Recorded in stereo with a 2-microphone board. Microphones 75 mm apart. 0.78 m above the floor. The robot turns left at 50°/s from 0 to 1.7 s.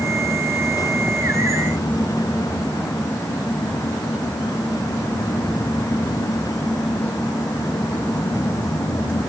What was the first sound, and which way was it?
Only background noise.